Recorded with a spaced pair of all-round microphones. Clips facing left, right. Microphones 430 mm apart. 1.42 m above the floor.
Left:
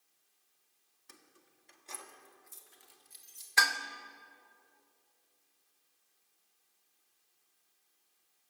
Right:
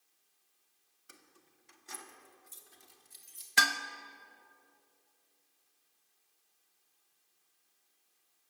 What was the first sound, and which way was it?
Keys jangling, 5° left (ahead or behind).